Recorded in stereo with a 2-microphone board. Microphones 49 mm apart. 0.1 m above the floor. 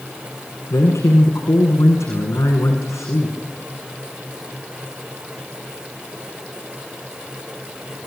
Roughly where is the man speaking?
Left.